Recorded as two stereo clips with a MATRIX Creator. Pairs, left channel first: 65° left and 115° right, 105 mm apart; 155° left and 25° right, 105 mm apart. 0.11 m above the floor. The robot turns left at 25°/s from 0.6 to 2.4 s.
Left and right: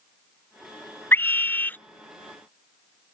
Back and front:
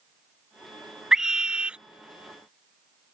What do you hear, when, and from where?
1.1 s a scream: 55° left; by 1.8 s 35° left